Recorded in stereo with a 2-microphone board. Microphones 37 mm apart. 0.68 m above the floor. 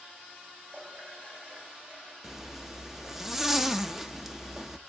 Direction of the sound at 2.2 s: 10° right (ahead or behind).